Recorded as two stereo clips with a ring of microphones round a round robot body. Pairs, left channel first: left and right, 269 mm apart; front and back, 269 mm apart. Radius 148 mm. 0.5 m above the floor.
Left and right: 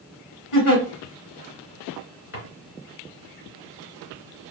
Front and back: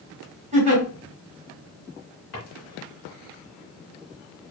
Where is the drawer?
45° left, 3 m.